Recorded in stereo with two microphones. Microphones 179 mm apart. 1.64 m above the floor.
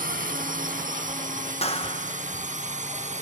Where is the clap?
35° left (ahead or behind).